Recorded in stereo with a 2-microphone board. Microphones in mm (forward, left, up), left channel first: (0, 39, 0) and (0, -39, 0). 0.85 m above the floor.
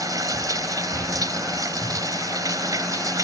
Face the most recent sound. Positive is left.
turn(degrees=-50)  # may be behind; listen again after turning